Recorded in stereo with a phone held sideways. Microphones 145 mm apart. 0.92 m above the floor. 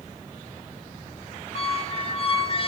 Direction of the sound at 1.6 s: 40° left (ahead or behind).